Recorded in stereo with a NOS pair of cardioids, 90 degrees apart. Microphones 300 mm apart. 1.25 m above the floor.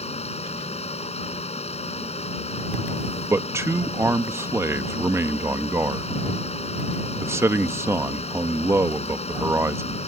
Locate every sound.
0.0 s a fan: 20° left
3.3 s a man speaking: 10° right